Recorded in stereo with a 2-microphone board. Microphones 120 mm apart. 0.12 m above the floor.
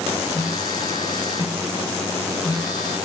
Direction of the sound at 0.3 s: 35° left (ahead or behind).